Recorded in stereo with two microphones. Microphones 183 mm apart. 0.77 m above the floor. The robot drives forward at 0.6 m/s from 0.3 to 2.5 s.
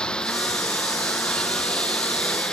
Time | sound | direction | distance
0.0 | a lawn mower | 5° left (ahead or behind) | ?